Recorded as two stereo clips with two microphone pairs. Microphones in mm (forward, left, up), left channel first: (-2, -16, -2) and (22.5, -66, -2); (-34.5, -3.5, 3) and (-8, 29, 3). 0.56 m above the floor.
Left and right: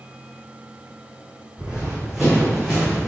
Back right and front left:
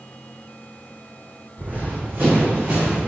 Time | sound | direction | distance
1.6 | running footsteps | 5° left | 1.6 m